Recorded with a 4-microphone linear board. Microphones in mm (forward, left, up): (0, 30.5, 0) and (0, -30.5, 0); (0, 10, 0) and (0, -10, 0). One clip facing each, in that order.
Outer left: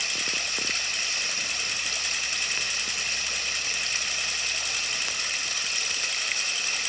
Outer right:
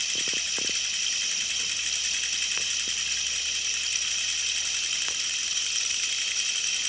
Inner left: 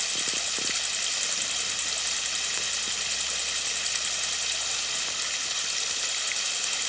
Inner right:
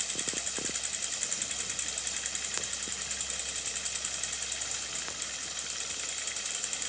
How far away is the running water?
About 0.9 m.